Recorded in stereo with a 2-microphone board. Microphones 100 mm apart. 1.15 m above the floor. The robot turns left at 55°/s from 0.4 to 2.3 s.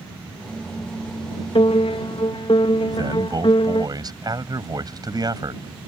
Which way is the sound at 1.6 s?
105° left.